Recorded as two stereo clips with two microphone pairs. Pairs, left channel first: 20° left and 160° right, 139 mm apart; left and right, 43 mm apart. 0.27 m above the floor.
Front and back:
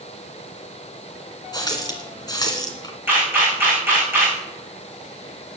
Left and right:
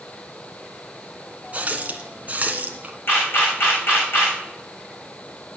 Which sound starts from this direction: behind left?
A camera shutter, at 3.1 s.